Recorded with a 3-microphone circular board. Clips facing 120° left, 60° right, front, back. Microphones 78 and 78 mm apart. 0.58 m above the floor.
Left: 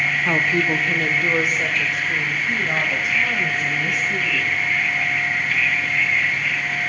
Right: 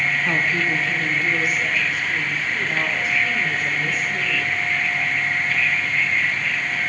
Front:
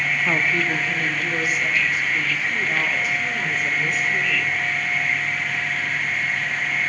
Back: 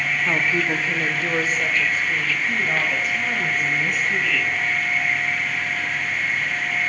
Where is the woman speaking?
75° left, 0.6 m; by 4.6 s 140° left, 4 m.